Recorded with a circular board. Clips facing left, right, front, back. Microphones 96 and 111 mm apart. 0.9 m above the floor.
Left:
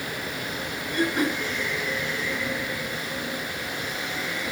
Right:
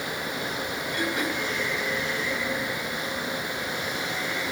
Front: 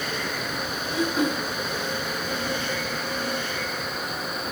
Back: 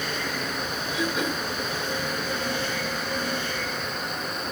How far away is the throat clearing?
About 5 m.